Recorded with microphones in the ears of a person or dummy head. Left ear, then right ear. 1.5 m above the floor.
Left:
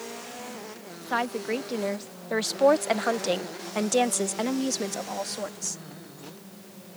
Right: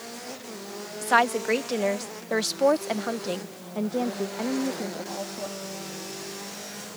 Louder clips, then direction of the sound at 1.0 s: Right 7 dB; 30° right (ahead or behind).